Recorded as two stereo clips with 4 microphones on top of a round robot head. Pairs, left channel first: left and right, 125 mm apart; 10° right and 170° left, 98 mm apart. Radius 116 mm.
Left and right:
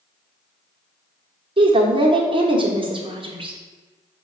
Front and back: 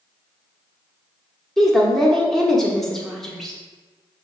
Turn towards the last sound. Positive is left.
turn(degrees=-95)